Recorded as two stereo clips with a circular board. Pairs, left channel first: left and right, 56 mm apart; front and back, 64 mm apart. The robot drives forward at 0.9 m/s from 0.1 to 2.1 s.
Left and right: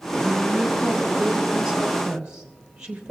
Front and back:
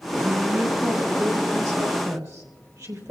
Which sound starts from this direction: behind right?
A woman speaking, at 0.1 s.